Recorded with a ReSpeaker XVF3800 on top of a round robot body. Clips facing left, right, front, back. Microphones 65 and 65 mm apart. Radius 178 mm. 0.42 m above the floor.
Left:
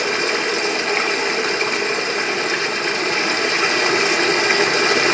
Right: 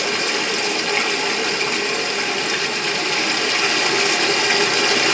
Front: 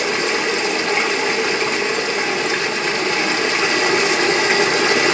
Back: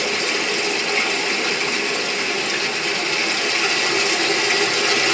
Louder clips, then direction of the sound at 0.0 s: Left 2 dB, front 3 dB; 40° left.